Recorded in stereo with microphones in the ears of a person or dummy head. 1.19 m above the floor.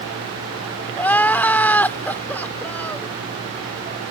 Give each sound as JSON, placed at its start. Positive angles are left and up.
{"t": 1.0, "sound": "crying", "side_deg": 10}